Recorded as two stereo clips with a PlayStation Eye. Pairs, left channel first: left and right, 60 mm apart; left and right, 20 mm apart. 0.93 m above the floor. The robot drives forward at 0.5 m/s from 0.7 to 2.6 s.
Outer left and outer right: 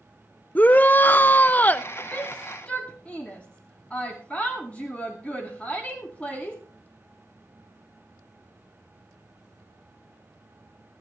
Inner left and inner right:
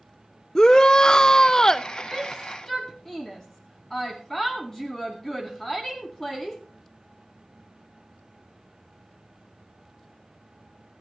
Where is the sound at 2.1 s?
25° left (ahead or behind), 1.8 m.